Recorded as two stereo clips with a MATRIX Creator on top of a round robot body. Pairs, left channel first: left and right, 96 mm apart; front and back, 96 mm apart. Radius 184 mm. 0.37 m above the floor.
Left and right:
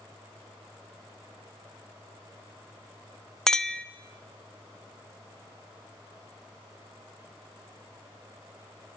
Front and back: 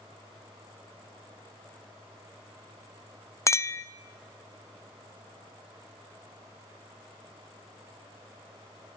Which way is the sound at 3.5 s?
10° left.